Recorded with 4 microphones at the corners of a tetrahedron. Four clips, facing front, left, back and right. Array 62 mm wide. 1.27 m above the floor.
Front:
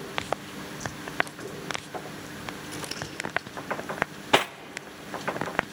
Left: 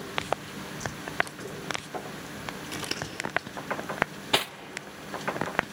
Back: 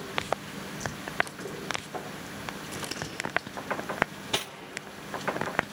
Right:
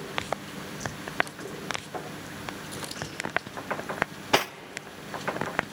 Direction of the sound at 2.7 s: 95° left.